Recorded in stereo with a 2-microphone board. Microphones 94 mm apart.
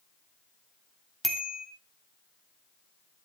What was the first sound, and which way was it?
A bicycle bell, centre (ahead or behind).